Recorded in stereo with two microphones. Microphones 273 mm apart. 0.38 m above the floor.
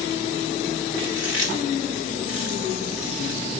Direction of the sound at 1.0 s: 45° left (ahead or behind).